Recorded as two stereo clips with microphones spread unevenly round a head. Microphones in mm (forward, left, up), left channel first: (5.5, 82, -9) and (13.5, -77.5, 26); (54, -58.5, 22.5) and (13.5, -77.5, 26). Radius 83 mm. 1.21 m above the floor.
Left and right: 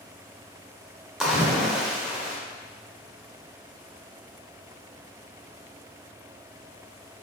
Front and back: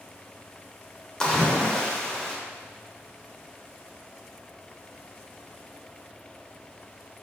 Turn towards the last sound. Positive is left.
turn(degrees=-40)